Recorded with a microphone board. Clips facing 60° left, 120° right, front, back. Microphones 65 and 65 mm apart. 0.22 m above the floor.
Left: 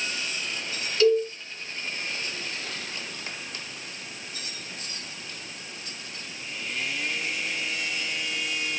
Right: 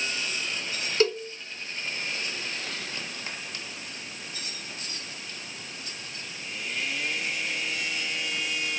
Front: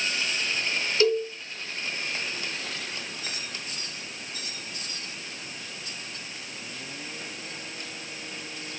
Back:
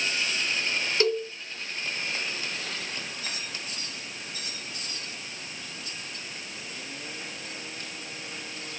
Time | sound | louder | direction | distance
1.0 | a cowbell | left 5 dB, front 3 dB | 135° right | 2 m